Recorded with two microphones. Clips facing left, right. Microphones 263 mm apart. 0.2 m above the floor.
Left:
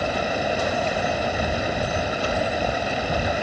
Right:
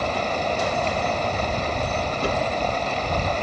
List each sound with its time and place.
0.0 s running water: 10° left (ahead or behind)
2.2 s a whoosh: 55° right (ahead or behind)